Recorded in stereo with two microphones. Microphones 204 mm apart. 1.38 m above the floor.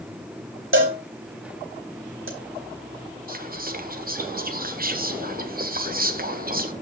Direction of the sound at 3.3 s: 45° right (ahead or behind).